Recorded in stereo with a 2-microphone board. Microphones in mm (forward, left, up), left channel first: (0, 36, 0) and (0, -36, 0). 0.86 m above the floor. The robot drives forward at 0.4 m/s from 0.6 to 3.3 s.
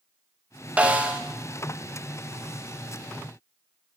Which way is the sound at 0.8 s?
20° right (ahead or behind).